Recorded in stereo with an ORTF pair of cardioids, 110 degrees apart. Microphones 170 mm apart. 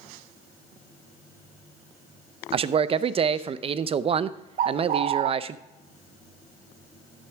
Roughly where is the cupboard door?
I don't hear a cupboard door.